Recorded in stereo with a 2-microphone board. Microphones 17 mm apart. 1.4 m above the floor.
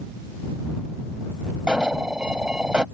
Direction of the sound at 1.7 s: 70° right (ahead or behind).